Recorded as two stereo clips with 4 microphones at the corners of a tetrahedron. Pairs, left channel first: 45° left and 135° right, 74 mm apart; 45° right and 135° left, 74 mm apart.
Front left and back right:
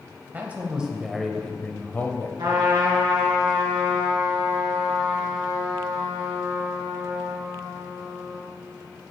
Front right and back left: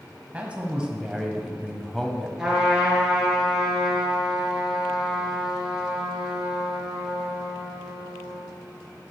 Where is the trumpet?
145° right, 3 m.